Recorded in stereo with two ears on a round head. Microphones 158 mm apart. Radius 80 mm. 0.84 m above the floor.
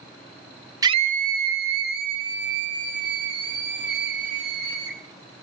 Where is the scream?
20° right (ahead or behind), 0.5 m; by 5.0 s 65° right (ahead or behind), 6 m.